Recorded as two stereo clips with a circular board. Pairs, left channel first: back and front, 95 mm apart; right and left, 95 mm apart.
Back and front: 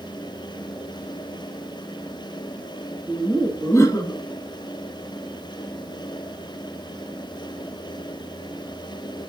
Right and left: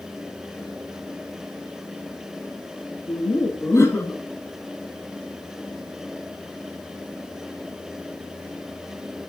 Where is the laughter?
100° right, 1.4 m; by 4.2 s 155° right, 1.5 m.